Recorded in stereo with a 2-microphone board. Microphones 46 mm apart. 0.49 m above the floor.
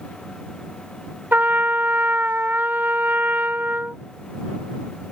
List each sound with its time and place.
1.3 s a trumpet: 50° right (ahead or behind)